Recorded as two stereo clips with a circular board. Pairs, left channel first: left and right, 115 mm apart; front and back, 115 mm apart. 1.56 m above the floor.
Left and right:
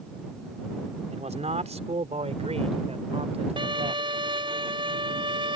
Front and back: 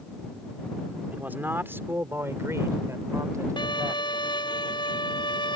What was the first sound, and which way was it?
A man speaking, 105° right.